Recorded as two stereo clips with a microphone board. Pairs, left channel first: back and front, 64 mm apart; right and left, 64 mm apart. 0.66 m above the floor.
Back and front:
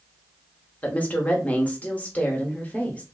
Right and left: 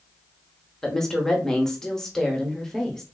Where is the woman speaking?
165° right, 0.8 m.